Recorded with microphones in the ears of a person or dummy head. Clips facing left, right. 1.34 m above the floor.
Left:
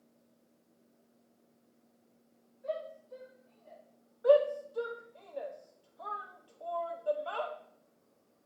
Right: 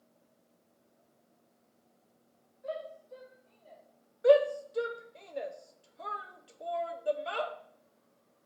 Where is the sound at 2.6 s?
5° right (ahead or behind), 3.5 m; by 3.8 s 30° right (ahead or behind), 3.5 m.